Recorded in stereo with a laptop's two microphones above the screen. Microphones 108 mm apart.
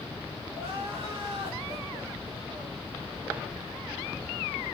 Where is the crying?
65° right (ahead or behind), 5.5 m.